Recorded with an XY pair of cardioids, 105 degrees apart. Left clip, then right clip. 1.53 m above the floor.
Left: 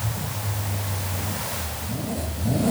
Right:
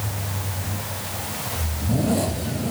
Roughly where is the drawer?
No drawer in this recording.